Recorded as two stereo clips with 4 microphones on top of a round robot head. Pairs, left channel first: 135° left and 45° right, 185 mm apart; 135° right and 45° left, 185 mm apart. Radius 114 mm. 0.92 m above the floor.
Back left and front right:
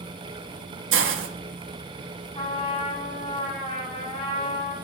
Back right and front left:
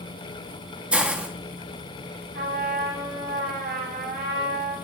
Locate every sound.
0.9 s a hiss: 40° right, 1.4 m
2.3 s a trumpet: 75° left, 7 m